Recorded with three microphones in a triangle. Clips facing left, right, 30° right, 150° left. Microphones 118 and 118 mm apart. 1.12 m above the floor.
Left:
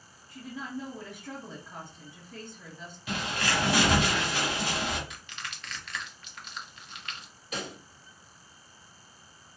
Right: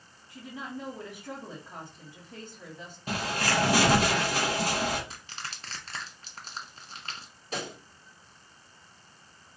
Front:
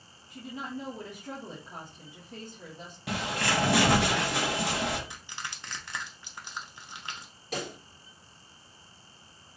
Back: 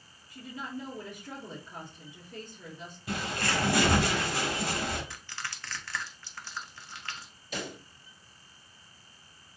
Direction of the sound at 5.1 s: 85° right.